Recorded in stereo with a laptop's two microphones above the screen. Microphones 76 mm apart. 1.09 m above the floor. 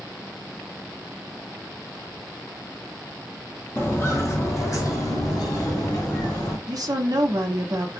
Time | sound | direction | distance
3.8 | footsteps | 30° left (ahead or behind) | 1.2 m
6.7 | a woman speaking | 55° right (ahead or behind) | 0.9 m